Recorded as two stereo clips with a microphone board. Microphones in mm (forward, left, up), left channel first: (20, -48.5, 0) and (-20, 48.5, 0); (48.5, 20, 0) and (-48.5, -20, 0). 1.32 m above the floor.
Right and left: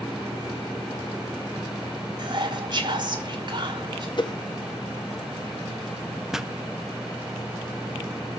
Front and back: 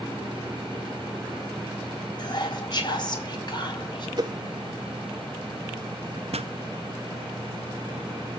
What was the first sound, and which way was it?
Whispering, 70° left.